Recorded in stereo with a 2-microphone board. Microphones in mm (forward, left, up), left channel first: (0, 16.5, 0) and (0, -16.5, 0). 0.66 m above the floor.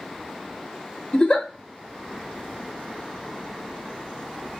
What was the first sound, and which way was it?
A giggle, 25° left (ahead or behind).